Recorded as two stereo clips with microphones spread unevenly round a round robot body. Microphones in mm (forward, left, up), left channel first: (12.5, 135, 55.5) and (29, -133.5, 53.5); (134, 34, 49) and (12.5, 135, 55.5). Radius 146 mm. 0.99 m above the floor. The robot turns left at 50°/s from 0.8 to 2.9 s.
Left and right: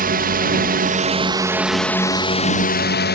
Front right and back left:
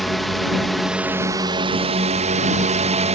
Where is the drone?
130° right; by 3.2 s 125° left.